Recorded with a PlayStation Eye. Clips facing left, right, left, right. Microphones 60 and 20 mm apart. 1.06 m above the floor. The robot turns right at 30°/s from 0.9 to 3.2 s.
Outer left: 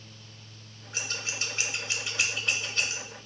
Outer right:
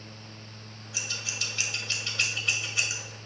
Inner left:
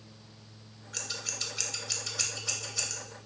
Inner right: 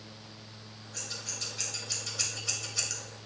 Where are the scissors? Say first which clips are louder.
Outer left 2 dB, inner left 3 dB; 45° left (ahead or behind), 0.8 m; by 3.0 s 15° right (ahead or behind), 0.8 m.